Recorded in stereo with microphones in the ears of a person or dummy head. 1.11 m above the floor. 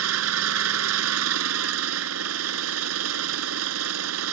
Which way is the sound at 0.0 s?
80° right.